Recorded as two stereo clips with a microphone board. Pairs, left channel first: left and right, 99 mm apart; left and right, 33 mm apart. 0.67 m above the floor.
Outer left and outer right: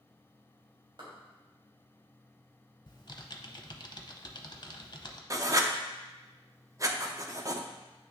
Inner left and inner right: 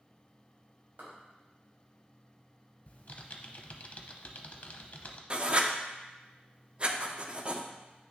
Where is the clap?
55° right (ahead or behind), 3 m.